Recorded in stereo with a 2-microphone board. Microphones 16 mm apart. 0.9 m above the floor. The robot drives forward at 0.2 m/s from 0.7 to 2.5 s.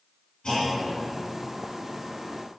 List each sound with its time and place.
0.4 s a clunk: 65° left (ahead or behind), 1.8 m; by 0.8 s 60° left (ahead or behind), 1.8 m